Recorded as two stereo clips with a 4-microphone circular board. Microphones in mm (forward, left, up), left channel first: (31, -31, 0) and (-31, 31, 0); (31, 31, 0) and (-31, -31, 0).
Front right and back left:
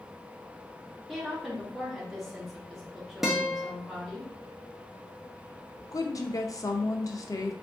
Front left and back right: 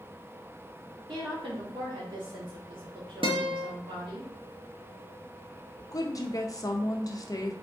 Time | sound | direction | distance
1.1 | a woman speaking | 140° right | 1.5 m
3.2 | a guitar | 140° right | 0.8 m
5.9 | a woman speaking | straight ahead | 0.6 m